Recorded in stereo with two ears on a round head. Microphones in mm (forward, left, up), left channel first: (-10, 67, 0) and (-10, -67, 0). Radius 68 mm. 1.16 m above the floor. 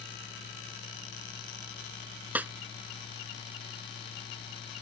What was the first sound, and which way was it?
A snare drum, 10° right (ahead or behind).